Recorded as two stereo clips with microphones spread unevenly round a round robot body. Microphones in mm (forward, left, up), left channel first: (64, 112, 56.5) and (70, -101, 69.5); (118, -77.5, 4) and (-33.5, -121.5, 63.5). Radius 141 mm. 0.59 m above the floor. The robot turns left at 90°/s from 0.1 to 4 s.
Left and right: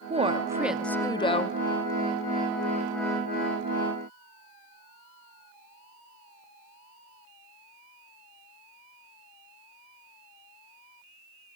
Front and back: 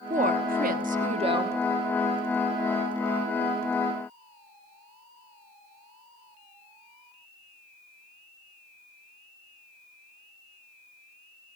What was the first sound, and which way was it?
A woman speaking, 125° right.